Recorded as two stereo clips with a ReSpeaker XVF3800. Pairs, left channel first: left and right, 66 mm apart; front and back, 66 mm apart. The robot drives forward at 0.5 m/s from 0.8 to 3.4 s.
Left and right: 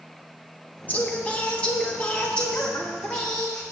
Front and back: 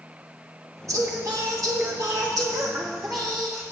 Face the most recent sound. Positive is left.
turn(degrees=165)